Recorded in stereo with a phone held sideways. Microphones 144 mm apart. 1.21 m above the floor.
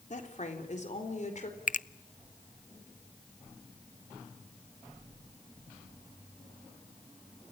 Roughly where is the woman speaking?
Left.